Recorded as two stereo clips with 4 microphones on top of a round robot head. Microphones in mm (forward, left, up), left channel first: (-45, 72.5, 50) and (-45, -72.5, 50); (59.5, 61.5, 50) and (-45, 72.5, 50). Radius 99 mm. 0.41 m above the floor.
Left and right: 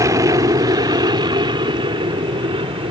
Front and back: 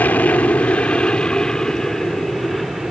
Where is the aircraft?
60° right; by 2.9 s 95° right.